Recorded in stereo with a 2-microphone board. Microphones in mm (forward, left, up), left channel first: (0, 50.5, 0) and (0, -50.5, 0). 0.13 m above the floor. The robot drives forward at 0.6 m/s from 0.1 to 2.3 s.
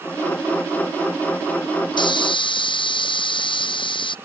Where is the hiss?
50° left (ahead or behind); by 4.2 s 55° left (ahead or behind).